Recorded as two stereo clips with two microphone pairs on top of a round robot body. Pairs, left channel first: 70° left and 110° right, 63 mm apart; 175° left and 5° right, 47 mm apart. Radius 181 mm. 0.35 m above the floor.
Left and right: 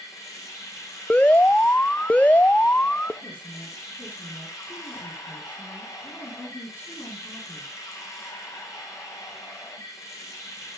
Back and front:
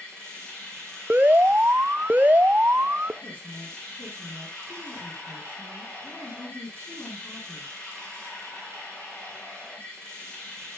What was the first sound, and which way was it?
Running water, 105° left.